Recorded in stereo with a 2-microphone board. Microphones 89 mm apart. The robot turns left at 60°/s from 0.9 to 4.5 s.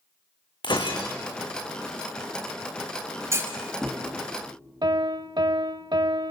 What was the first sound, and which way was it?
Breaking glass, 55° left (ahead or behind).